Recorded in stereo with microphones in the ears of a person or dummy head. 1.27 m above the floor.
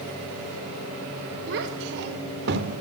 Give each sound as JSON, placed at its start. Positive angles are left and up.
{"t": 1.5, "sound": "a child speaking", "side_deg": -65, "distance_m": 4.5}